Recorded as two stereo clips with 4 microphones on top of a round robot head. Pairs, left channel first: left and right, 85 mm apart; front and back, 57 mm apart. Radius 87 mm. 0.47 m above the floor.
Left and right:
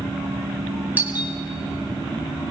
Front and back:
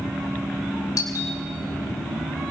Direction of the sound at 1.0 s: 20° right.